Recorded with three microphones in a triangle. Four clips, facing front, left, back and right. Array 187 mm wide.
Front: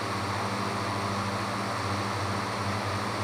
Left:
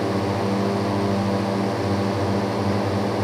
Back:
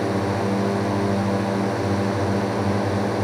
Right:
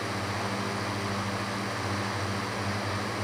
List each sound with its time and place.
0.0 s a drone: 135° left